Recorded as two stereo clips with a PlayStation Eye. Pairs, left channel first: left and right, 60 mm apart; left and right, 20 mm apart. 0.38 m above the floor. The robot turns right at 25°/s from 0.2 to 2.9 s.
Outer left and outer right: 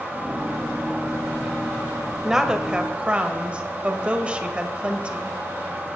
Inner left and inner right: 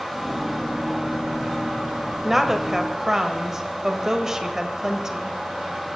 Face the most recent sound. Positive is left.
turn(degrees=-20)  # may be behind; listen again after turning